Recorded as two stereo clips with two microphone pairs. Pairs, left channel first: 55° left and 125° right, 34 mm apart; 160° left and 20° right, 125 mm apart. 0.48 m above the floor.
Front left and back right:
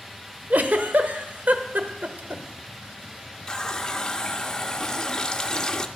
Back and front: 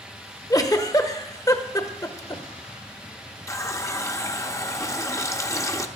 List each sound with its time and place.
0.5 s a giggle: 145° right, 0.9 m
3.5 s a running tap: 115° left, 0.7 m